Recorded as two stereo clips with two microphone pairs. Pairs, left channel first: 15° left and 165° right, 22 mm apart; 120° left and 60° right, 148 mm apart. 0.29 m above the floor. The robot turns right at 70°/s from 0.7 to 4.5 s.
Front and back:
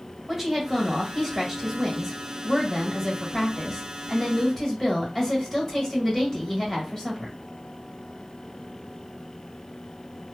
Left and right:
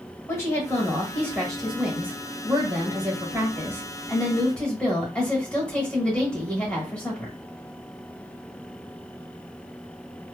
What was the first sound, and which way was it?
A woman speaking, 145° left.